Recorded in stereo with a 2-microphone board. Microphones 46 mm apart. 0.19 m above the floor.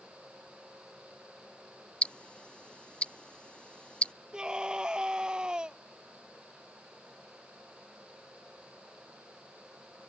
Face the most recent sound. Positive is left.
turn(degrees=-15)  # may be behind; listen again after turning